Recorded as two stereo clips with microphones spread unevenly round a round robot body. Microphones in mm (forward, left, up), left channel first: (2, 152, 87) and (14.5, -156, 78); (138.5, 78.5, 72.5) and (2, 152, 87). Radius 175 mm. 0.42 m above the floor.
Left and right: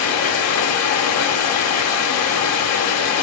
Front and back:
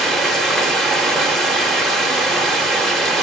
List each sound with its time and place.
0.0 s running water: 60° left, 0.9 m